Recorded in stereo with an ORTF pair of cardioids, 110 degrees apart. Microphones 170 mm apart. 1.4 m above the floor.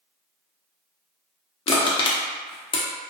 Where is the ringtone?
I don't hear a ringtone.